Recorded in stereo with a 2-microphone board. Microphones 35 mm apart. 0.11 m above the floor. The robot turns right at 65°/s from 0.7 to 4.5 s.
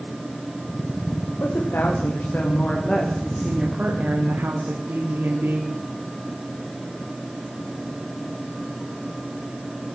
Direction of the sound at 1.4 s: 65° left.